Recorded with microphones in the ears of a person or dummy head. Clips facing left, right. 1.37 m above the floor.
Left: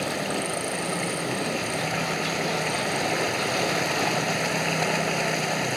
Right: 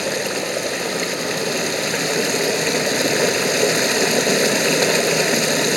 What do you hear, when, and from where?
0.0 s running water: 85° right